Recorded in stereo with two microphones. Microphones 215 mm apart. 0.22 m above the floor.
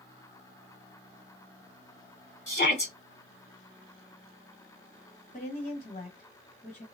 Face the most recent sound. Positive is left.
turn(degrees=35)  # may be behind; listen again after turning